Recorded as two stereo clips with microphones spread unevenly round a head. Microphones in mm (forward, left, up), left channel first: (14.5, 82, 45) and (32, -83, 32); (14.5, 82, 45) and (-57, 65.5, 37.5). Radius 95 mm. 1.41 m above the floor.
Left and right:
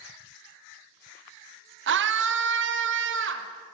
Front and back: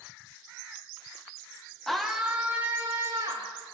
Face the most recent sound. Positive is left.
turn(degrees=-100)